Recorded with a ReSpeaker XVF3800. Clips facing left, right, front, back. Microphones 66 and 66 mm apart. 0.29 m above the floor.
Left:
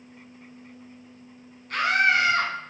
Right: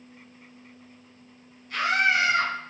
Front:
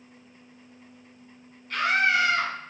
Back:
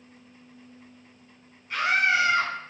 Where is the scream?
105° left, 2 m.